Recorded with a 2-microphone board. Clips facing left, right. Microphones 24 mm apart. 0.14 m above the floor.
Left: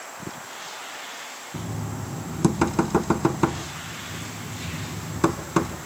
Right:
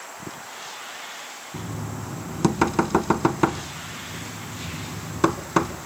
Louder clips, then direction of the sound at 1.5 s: Even; 15° right (ahead or behind).